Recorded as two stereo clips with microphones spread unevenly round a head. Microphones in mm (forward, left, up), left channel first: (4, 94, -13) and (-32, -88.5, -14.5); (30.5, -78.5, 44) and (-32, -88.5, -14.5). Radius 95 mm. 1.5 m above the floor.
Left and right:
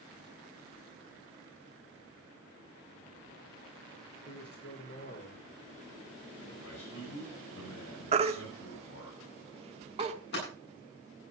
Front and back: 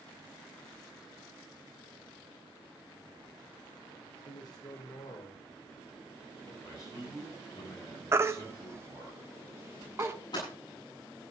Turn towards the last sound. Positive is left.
turn(degrees=40)